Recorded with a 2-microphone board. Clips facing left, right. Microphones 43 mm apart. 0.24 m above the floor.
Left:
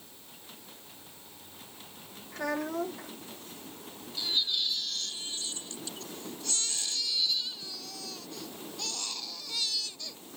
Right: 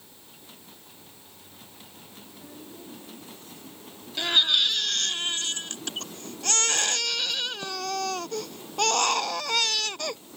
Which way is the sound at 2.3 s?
85° left.